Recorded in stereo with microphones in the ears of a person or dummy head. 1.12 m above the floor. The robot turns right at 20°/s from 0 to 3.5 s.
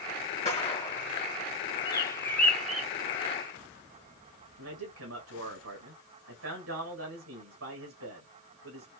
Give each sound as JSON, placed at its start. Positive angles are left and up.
{"t": 0.5, "sound": "a gunshot", "side_deg": 25, "distance_m": 2.5}
{"t": 1.9, "sound": "a bird", "side_deg": 15, "distance_m": 1.4}
{"t": 4.6, "sound": "a man speaking", "side_deg": -80, "distance_m": 1.3}